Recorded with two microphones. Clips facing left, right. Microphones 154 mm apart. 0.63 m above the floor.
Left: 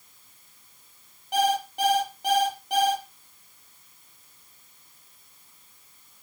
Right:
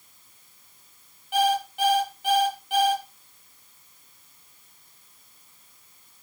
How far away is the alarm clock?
About 6.5 m.